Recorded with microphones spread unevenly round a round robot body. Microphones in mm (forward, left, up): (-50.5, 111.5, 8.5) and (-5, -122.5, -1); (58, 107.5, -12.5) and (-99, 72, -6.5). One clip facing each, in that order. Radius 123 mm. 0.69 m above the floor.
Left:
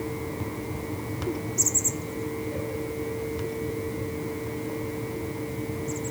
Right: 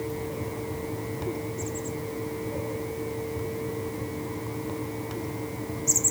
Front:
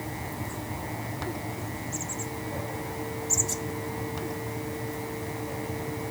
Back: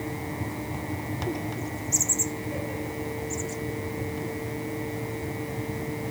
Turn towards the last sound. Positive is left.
No sound to turn to.